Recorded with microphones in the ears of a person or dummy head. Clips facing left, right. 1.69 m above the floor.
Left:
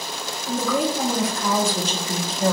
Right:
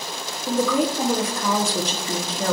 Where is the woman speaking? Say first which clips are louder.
Right 2 dB; 55° right (ahead or behind), 1.1 m.